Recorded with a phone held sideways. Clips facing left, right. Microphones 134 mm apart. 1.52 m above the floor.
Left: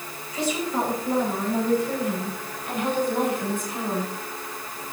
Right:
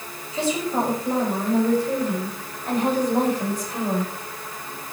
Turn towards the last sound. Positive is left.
turn(degrees=-40)  # may be behind; listen again after turning